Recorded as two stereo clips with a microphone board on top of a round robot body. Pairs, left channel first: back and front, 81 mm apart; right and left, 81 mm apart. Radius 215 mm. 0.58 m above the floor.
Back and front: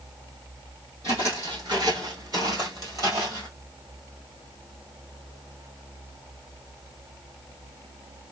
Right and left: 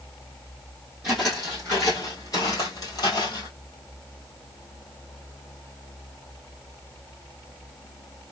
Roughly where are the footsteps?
Ahead.